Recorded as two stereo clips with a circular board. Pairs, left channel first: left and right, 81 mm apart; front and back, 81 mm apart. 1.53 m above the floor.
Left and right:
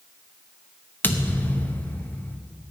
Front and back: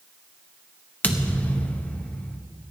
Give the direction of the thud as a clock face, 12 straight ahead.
10 o'clock.